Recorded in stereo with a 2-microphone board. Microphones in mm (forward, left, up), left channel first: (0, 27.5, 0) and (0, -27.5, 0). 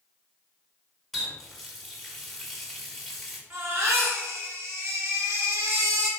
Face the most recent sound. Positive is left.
turn(degrees=-40)  # may be behind; listen again after turning